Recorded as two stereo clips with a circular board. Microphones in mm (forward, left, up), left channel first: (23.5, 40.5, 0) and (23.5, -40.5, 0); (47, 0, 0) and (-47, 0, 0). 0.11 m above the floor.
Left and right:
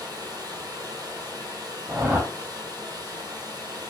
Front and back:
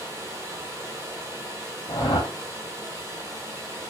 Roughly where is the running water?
Behind right.